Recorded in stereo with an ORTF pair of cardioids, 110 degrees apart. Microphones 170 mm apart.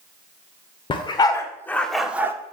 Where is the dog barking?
35° left, 2 m; by 2.3 s 15° right, 1.5 m.